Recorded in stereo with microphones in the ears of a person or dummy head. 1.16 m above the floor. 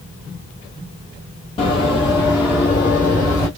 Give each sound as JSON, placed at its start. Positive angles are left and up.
{"t": 1.6, "sound": "running footsteps", "side_deg": 30, "distance_m": 1.6}